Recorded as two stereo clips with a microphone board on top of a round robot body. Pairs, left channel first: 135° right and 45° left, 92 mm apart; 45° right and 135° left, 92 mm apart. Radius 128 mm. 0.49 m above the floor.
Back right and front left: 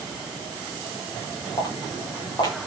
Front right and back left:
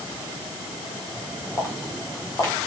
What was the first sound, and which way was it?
Footsteps, 95° right.